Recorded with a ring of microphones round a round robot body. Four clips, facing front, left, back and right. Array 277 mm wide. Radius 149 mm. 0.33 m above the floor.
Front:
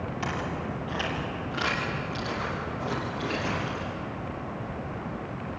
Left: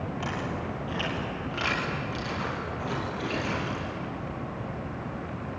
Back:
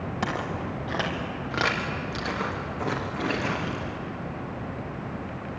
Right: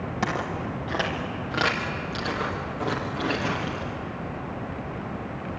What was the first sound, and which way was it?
Footsteps, 130° right.